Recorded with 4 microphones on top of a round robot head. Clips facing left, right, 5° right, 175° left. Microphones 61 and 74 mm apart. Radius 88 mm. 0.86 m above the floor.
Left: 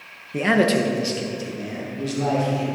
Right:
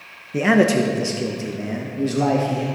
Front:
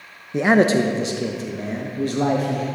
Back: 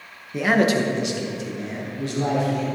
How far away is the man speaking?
About 0.9 m.